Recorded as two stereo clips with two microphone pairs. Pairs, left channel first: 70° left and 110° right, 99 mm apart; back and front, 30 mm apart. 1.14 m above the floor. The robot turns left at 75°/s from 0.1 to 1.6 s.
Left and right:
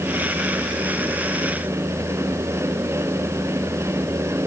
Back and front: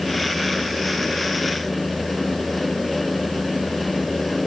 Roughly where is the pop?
No pop in this recording.